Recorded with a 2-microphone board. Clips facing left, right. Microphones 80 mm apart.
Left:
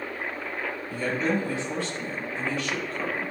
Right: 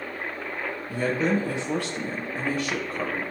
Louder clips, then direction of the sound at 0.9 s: Right 3 dB; 75° right (ahead or behind).